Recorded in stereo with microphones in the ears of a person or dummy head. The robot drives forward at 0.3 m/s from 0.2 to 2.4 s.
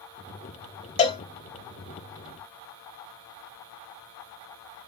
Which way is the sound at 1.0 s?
40° left (ahead or behind).